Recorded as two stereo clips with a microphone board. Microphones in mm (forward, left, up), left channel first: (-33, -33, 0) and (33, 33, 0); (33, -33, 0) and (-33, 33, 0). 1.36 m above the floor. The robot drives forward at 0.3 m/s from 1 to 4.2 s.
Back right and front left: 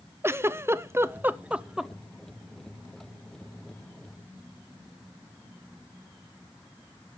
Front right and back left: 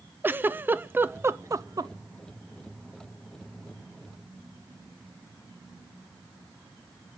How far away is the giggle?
About 0.5 m.